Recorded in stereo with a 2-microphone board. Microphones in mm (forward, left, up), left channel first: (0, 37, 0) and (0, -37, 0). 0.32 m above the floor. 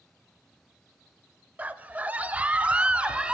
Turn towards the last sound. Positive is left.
turn(degrees=-15)  # may be behind; listen again after turning